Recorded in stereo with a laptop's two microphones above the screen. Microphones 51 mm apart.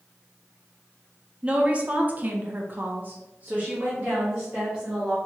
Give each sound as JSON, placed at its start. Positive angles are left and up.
{"t": 1.4, "sound": "a woman speaking", "side_deg": -20, "distance_m": 0.9}